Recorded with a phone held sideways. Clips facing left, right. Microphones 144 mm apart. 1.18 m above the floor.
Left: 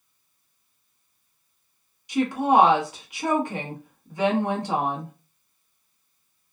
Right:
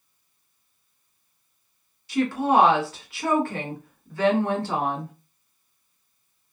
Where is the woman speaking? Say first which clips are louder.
Left 1 dB; 15° left (ahead or behind), 1.0 m.